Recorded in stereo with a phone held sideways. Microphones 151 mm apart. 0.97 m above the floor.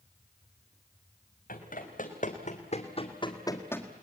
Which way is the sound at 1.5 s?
70° left (ahead or behind).